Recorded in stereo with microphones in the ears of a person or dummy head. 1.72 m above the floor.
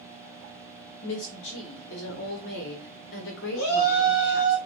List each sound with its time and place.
1.0 s a woman speaking: 75° left (ahead or behind), 1.2 m
3.5 s a shout: 55° left (ahead or behind), 2.5 m